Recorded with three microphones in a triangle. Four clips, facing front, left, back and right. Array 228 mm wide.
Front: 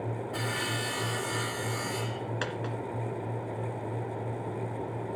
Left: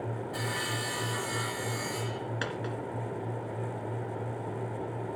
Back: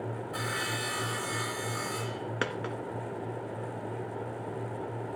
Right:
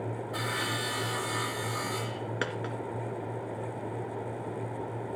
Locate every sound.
0.3 s sawing: 65° right, 3 m
2.4 s a dropped coin: 150° right, 1.7 m